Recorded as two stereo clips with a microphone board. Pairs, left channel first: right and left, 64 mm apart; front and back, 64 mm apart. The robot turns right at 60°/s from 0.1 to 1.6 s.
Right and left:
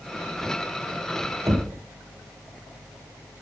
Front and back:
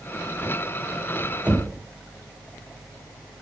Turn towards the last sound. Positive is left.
turn(degrees=125)